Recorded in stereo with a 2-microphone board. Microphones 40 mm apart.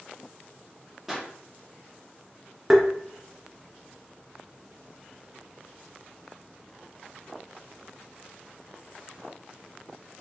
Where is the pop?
5° right (ahead or behind), 1.2 m.